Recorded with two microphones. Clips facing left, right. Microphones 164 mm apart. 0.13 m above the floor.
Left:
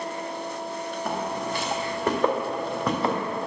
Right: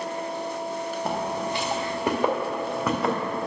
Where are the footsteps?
25° right (ahead or behind), 2 m; by 3.2 s centre (ahead or behind), 3 m.